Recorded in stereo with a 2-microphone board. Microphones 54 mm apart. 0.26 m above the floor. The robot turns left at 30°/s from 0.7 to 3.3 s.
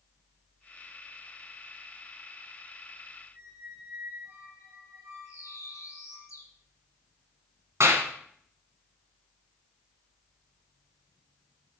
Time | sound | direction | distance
3.3 | a squeak | 45° right (ahead or behind) | 6.5 m
5.2 | a bird | 75° left (ahead or behind) | 3 m
7.8 | a clap | 60° right (ahead or behind) | 2 m